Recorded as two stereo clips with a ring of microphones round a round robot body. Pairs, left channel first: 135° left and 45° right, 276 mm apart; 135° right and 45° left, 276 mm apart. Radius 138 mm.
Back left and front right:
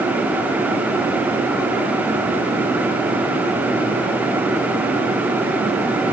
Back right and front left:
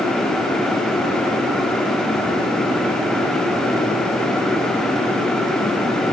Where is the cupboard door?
I don't hear a cupboard door.